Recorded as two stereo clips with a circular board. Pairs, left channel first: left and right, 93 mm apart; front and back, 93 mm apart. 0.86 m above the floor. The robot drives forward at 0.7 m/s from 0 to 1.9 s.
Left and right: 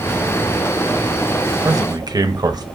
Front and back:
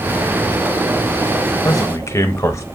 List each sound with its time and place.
1.6 s a man speaking: 40° right, 0.8 m; by 2.6 s 55° right, 0.6 m